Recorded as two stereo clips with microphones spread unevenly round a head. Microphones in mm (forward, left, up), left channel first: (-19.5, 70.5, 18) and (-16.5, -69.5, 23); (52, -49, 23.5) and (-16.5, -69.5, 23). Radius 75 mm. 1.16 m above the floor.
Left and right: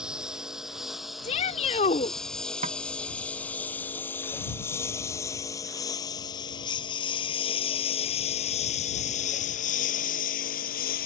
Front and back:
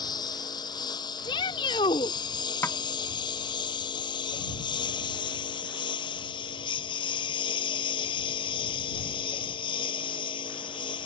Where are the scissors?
No scissors in this recording.